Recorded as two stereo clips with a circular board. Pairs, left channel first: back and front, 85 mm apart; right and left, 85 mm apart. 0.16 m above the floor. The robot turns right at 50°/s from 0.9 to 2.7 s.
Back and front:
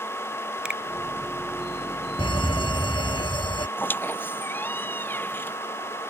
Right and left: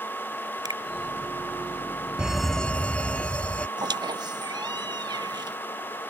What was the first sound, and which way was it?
A finger snap, 75° left.